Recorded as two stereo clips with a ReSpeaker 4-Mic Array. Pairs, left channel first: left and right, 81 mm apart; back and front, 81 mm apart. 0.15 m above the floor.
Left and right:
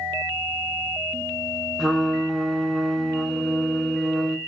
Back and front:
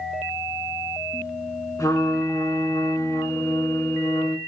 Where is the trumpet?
Straight behind, 0.6 m.